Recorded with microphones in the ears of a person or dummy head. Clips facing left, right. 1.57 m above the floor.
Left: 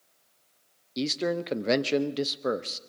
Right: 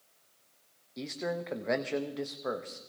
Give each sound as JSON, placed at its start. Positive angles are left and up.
{"t": 1.0, "sound": "a man speaking", "side_deg": 50, "distance_m": 0.6}